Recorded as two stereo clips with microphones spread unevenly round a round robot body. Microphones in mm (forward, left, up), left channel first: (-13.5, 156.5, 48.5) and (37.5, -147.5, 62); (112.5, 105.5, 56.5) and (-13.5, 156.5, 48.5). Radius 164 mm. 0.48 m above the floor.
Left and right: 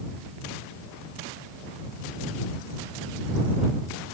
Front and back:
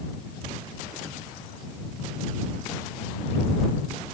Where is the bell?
No bell in this recording.